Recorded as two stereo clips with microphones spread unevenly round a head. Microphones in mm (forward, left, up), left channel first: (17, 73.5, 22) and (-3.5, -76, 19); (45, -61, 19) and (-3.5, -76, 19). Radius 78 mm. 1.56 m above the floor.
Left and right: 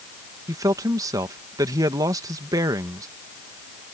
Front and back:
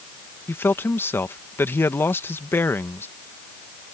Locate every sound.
0.5 s a man speaking: 30° right